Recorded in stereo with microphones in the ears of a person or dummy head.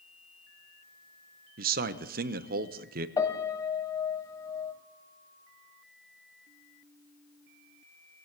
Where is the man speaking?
40° right (ahead or behind), 0.8 m.